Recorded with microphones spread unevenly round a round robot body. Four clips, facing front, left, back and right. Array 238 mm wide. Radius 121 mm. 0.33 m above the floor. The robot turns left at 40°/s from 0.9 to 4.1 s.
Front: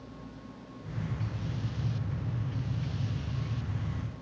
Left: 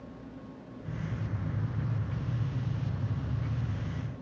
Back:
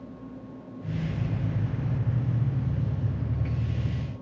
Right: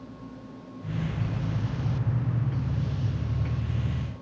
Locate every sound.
Only background noise.